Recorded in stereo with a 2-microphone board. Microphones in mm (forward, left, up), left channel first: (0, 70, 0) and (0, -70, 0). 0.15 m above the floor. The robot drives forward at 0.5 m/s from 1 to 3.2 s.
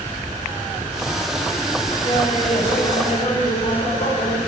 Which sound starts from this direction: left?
Laughter, at 2.0 s.